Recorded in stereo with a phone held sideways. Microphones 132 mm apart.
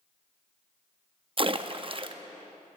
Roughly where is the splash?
Right.